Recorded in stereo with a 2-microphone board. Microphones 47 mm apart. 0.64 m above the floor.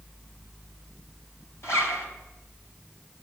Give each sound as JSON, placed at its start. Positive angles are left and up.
{"t": 1.6, "sound": "a zipper", "side_deg": 65, "distance_m": 3.5}